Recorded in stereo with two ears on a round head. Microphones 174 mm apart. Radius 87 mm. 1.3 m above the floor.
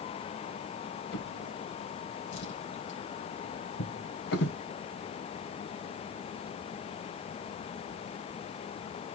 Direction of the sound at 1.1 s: 60° left (ahead or behind).